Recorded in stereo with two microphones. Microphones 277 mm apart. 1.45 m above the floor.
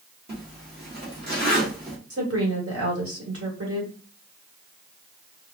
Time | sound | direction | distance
0.3 | a zipper | 35° right (ahead or behind) | 1.6 m
2.1 | a woman speaking | 60° right (ahead or behind) | 1.9 m